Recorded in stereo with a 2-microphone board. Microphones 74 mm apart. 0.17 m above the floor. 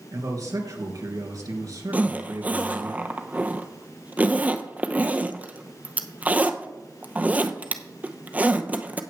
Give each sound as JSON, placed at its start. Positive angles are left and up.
{"t": 0.1, "sound": "a man speaking", "side_deg": -55, "distance_m": 3.0}
{"t": 1.9, "sound": "a zipper", "side_deg": -25, "distance_m": 0.7}